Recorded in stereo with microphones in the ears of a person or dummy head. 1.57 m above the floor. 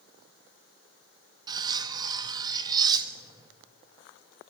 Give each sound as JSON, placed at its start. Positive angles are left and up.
{"t": 1.5, "sound": "cutlery clinking", "side_deg": -30, "distance_m": 1.6}